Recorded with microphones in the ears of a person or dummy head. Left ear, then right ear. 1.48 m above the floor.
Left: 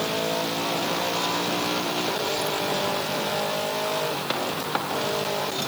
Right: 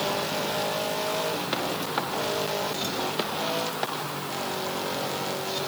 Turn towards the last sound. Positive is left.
No sound to turn to.